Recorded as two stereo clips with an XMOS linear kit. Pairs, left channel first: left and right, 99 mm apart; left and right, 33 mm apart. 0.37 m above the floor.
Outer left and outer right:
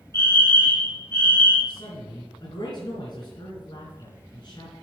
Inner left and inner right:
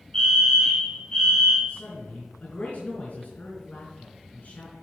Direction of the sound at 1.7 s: 50° left (ahead or behind).